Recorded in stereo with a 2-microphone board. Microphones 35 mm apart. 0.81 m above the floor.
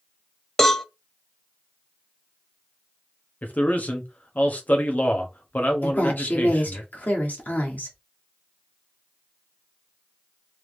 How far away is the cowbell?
About 0.7 m.